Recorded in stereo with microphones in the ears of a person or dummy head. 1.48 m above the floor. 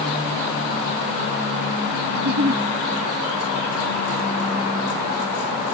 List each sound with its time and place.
2.1 s a giggle: 60° right (ahead or behind)